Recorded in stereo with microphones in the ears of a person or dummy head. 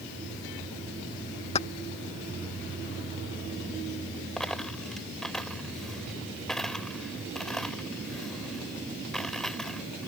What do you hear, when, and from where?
1.6 s keys jangling: 30° left (ahead or behind)
4.4 s a dropped coin: centre (ahead or behind)